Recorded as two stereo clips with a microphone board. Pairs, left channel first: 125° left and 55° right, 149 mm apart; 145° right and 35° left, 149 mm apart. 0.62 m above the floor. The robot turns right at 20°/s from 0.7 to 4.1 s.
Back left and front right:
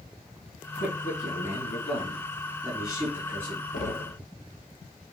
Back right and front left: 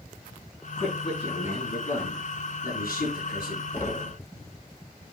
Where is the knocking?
140° left, 2 m; by 4.2 s 150° left, 2 m.